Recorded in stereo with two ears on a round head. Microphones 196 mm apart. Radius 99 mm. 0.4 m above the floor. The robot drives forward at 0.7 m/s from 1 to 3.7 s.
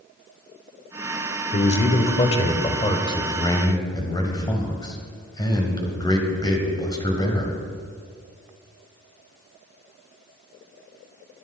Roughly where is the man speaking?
Left.